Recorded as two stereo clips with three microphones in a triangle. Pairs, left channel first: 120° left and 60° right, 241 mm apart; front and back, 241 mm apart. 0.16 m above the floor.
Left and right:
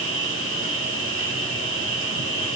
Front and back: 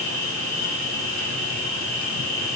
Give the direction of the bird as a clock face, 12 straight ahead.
No bird in this recording.